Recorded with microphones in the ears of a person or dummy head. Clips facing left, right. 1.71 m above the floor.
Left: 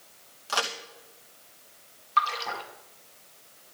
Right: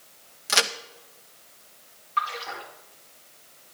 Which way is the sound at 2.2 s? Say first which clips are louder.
Left 2 dB; 60° left (ahead or behind).